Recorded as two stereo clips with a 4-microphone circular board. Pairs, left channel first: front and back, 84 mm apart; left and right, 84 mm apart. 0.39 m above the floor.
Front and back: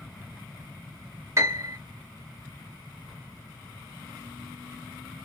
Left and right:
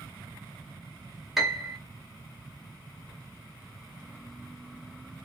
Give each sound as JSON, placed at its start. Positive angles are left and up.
{"t": 1.4, "sound": "a piano", "azimuth_deg": -175, "distance_m": 1.1}